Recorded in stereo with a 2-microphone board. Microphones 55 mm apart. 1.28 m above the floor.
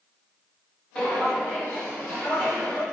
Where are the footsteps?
15° left (ahead or behind), 1.3 m; by 2.8 s 45° left (ahead or behind), 2 m.